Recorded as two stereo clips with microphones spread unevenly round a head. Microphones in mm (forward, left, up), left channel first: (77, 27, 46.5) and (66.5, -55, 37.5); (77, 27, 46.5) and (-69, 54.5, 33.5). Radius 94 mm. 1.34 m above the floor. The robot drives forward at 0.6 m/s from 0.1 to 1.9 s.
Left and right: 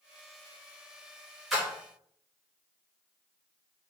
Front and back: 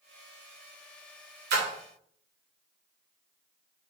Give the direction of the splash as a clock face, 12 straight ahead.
6 o'clock.